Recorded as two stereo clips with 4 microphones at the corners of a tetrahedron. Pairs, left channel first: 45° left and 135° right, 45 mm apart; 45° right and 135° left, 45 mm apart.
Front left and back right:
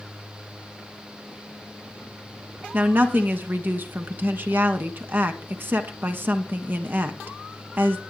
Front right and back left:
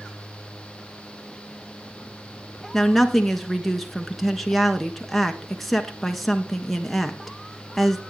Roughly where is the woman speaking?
Behind right.